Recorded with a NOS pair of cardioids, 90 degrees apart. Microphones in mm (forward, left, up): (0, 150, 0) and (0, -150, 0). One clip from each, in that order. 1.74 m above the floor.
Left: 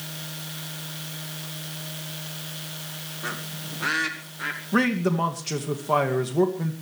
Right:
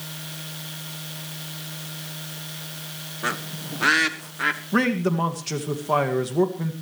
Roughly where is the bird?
Ahead right.